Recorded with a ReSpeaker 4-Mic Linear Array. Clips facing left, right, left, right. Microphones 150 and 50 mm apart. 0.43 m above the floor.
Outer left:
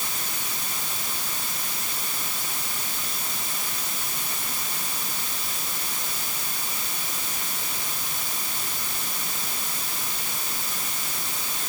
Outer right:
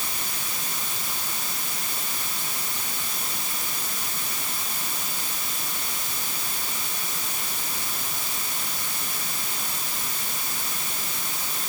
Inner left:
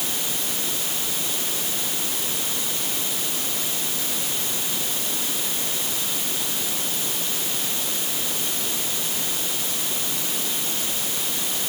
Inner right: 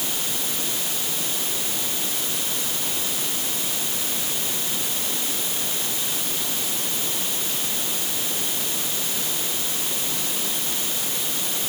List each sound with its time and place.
Only background noise.